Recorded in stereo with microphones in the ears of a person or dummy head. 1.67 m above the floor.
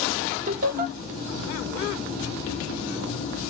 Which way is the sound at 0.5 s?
50° right (ahead or behind).